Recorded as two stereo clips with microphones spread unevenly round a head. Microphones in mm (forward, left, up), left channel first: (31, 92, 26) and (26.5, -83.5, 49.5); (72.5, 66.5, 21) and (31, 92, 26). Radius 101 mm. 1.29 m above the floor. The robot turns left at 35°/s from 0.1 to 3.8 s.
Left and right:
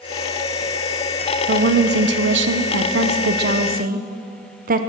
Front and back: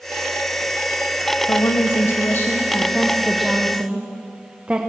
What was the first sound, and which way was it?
A woman speaking, 55° right.